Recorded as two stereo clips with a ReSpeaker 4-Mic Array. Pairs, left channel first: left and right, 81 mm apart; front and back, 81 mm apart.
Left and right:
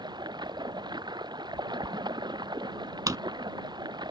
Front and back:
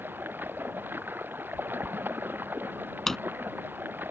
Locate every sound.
0.0 s running water: 115° right
3.1 s a drawer: 85° right